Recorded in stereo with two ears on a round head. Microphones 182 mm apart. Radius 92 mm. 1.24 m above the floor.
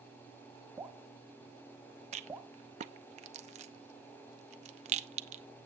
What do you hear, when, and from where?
0.8 s dripping: 10° right (ahead or behind), 1.2 m
2.1 s a rattle: 35° right (ahead or behind), 0.7 m